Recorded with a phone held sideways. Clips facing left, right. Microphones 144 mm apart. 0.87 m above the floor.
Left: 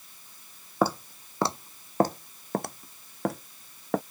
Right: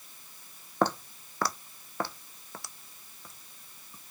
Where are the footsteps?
5° left (ahead or behind); by 4.0 s 75° left (ahead or behind).